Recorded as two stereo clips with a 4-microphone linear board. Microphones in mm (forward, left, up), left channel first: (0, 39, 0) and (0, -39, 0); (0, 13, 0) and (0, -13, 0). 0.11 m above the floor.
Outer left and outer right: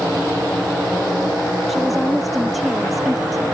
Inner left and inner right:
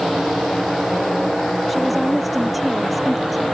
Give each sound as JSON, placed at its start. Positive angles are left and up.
{"t": 1.7, "sound": "a woman speaking", "side_deg": 0}